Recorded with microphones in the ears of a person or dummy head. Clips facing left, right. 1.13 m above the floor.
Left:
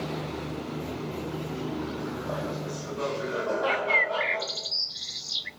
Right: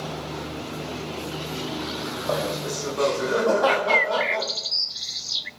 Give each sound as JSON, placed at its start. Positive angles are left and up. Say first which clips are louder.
{"t": 2.3, "sound": "laughter", "louder": "right 6 dB", "side_deg": -75, "distance_m": 4.0}
{"t": 3.7, "sound": "a bird", "louder": "right 6 dB", "side_deg": -5, "distance_m": 0.7}